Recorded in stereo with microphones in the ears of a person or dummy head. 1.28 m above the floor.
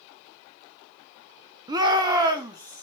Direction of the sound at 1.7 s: 20° right (ahead or behind).